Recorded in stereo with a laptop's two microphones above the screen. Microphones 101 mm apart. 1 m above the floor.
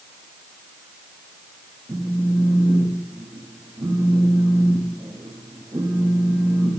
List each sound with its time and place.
1.9 s a phone buzzing: 35° right (ahead or behind), 1.1 m